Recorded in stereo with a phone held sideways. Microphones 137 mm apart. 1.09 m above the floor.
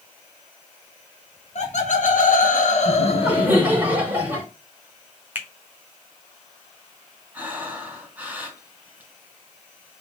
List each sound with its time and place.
1.6 s laughter: 55° left (ahead or behind), 1.4 m; by 3.6 s 35° left (ahead or behind), 1.5 m
2.9 s laughter: 10° right (ahead or behind), 4 m
5.3 s a finger snap: 15° right (ahead or behind), 1.1 m
7.3 s breathing: 10° right (ahead or behind), 4 m